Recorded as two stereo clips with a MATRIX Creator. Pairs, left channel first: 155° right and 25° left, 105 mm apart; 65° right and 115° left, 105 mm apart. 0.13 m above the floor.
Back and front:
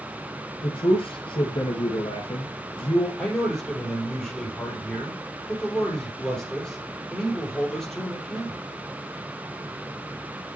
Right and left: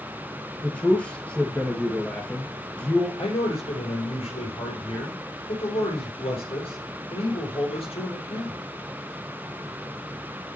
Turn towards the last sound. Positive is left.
turn(degrees=-75)